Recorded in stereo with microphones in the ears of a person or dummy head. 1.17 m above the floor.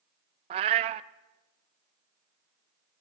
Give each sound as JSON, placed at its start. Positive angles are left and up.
{"t": 0.5, "sound": "a cat meowing", "side_deg": -30, "distance_m": 0.5}